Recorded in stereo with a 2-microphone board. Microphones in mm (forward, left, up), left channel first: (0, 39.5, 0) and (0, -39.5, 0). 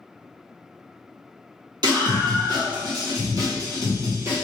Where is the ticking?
No ticking in this recording.